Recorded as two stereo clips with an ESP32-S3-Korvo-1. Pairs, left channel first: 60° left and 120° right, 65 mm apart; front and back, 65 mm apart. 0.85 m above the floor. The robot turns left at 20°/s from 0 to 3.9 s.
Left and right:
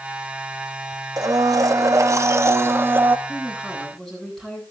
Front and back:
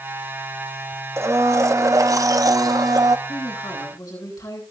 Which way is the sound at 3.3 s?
10° right.